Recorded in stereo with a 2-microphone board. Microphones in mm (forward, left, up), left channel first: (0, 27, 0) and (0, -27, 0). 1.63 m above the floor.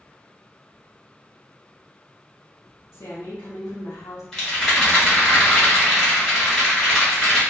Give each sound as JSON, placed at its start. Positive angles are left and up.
{"t": 2.9, "sound": "a woman speaking", "side_deg": 70, "distance_m": 0.7}
{"t": 4.3, "sound": "a rattle", "side_deg": 10, "distance_m": 1.5}